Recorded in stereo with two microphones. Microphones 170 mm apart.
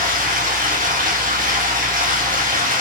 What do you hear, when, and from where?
0.0 s running water: 55° right (ahead or behind), 0.8 m